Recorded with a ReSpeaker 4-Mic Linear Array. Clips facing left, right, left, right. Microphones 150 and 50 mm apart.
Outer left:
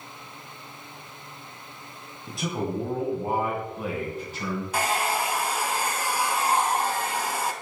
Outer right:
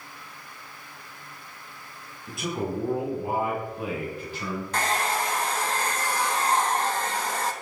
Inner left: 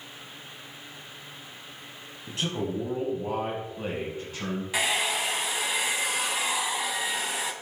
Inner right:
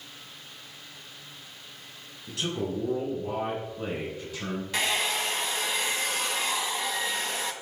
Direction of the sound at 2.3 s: 35° left (ahead or behind).